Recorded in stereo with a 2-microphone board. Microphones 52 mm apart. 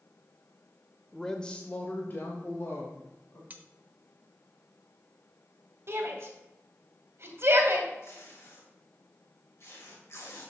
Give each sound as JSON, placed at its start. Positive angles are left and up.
{"t": 1.1, "sound": "a woman speaking", "side_deg": 5, "distance_m": 0.8}
{"t": 3.5, "sound": "cutlery clinking", "side_deg": -30, "distance_m": 0.7}
{"t": 5.9, "sound": "a shout", "side_deg": -55, "distance_m": 2.0}
{"t": 8.0, "sound": "tape being pulled", "side_deg": 60, "distance_m": 3.0}